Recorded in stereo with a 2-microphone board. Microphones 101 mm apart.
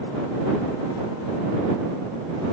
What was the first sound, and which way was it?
Only background noise.